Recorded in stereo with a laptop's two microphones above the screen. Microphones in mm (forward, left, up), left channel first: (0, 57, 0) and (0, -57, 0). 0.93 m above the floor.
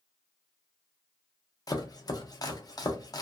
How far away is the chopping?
About 0.6 m.